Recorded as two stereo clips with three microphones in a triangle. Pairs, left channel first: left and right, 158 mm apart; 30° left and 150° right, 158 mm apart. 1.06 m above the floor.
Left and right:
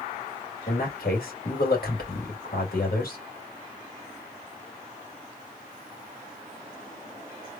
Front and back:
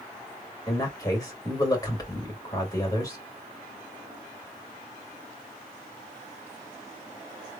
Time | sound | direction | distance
0.7 | a man speaking | 95° left | 1.9 m